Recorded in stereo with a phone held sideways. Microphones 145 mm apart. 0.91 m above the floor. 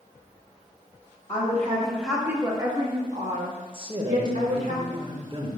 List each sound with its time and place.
1.3 s a woman speaking: 25° left (ahead or behind), 1.4 m; by 4.7 s 75° right (ahead or behind), 2.5 m
3.7 s a man speaking: 35° right (ahead or behind), 1.0 m